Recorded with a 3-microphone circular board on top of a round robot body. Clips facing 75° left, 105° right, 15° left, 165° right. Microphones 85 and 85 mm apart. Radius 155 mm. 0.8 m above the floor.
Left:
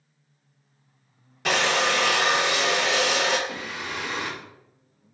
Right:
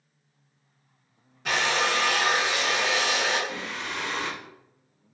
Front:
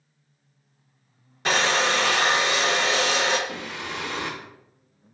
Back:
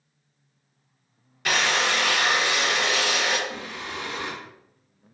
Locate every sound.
1.4 s a drill: 75° left, 0.6 m
3.5 s singing: 10° right, 0.5 m